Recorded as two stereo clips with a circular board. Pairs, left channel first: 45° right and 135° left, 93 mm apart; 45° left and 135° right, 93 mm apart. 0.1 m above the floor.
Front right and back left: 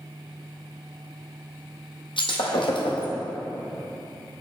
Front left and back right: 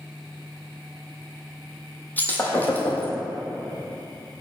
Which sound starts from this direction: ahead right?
Breaking glass, at 2.2 s.